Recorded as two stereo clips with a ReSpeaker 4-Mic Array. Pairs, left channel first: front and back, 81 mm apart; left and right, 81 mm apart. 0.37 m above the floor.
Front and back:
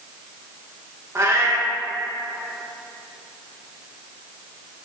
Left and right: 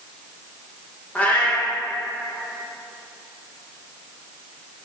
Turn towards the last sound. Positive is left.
turn(degrees=155)